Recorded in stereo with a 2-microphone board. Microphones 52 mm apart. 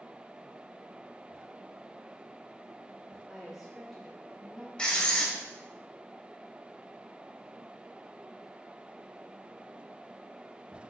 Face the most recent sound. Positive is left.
turn(degrees=20)  # may be behind; listen again after turning